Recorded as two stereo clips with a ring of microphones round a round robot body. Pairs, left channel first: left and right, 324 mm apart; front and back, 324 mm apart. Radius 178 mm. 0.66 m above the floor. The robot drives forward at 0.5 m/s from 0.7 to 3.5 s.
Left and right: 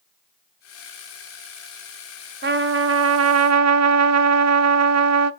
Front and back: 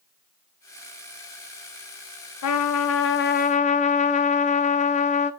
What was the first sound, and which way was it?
A trumpet, 35° right.